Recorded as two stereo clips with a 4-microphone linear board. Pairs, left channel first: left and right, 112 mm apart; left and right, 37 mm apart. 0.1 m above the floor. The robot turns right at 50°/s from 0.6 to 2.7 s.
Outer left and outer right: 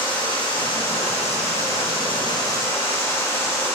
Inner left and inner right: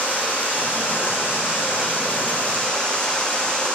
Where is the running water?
50° left, 1.9 m; by 3.8 s 155° left, 1.9 m.